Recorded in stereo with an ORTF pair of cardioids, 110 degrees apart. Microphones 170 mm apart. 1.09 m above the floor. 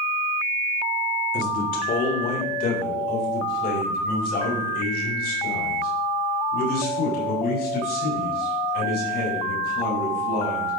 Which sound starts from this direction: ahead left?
A man speaking, at 1.3 s.